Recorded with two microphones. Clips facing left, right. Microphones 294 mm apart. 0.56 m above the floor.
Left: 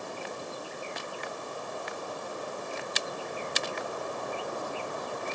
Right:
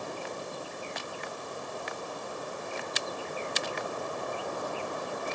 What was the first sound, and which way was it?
Only background noise.